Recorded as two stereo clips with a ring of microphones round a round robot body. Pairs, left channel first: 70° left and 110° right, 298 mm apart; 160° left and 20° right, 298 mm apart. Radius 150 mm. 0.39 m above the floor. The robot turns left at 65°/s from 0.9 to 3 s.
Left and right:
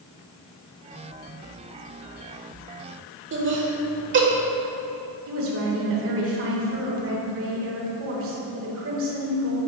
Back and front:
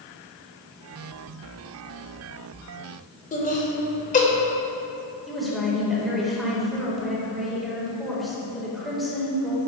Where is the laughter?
145° right, 1.1 m.